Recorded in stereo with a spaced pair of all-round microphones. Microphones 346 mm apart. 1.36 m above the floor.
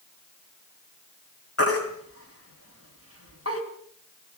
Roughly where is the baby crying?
Left.